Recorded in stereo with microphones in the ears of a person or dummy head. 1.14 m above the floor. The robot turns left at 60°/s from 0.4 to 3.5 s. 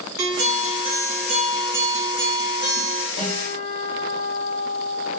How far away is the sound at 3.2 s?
About 2 m.